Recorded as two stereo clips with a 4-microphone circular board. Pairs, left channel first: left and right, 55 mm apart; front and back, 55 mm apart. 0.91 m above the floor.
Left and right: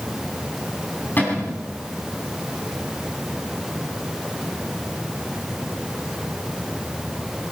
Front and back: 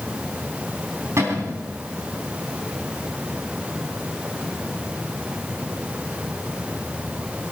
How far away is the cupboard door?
About 3.5 m.